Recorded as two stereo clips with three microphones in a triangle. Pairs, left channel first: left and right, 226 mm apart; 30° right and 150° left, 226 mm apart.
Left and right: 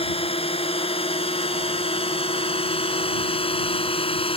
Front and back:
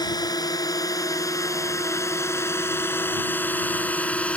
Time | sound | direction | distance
0.0 | a drone | 35° left | ?